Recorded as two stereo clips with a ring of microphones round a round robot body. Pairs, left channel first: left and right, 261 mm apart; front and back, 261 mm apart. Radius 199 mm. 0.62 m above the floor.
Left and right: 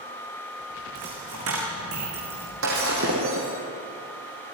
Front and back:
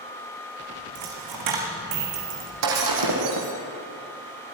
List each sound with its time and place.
0.9 s a dropped coin: 150° right, 2.5 m
2.6 s breaking glass: 150° right, 3 m